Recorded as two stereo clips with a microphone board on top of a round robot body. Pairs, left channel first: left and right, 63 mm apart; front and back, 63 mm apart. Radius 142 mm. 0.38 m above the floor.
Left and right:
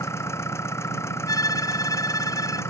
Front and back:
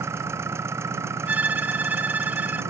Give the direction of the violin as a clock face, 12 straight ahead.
8 o'clock.